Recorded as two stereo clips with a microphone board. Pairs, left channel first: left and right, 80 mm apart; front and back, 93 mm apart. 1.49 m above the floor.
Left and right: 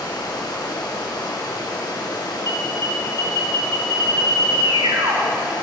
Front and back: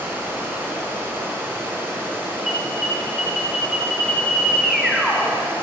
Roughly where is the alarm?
Right.